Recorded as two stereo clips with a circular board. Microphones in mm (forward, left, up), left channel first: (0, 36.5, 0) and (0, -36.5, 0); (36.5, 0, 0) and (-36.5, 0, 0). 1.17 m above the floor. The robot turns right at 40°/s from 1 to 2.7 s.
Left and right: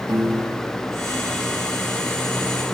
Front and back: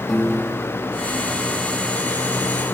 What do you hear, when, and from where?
0.1 s a piano: 85° right, 2.5 m; by 1.1 s 80° right, 2.5 m